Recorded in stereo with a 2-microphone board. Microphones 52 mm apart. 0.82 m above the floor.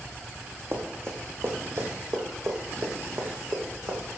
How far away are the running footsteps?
About 2.5 m.